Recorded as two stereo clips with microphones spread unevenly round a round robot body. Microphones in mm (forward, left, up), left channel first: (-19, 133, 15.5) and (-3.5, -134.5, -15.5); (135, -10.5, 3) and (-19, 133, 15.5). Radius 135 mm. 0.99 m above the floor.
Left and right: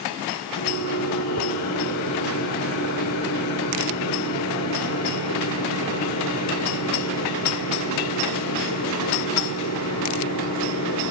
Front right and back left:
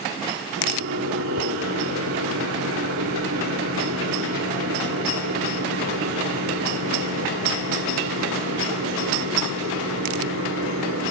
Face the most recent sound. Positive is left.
turn(degrees=125)